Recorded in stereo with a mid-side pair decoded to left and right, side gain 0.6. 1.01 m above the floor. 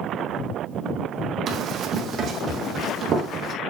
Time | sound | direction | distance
1.5 | running footsteps | 45° right | 3 m